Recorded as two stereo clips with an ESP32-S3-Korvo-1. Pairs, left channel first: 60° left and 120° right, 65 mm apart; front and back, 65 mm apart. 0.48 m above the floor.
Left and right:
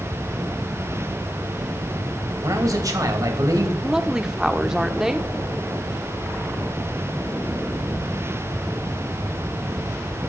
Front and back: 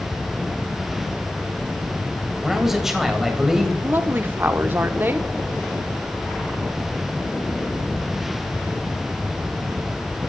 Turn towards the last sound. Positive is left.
turn(degrees=165)